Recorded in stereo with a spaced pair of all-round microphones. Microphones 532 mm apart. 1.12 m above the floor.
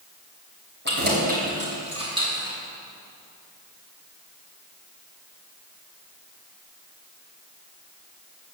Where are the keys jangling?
20° right (ahead or behind), 3.5 m; by 2.6 s 5° right (ahead or behind), 4 m.